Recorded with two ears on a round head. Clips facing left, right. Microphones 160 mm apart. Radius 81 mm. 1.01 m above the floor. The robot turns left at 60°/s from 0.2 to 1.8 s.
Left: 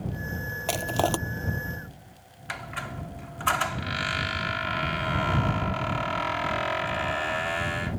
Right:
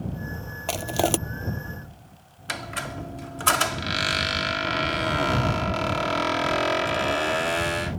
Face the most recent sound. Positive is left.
turn(degrees=-50)  # may be behind; listen again after turning